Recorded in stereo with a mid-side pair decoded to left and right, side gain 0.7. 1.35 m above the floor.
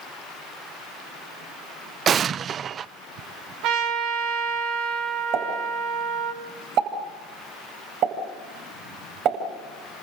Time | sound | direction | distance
2.1 | an explosion | 35° right | 0.5 m
3.6 | a trumpet | 55° right | 4 m
5.3 | a pop | 50° right | 8 m